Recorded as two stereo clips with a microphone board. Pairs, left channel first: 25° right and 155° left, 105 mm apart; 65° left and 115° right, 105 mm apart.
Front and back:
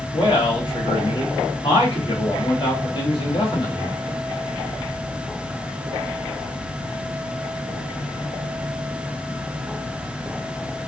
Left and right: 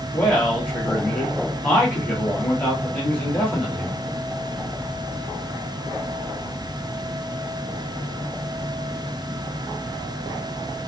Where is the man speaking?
5° right, 1.5 m.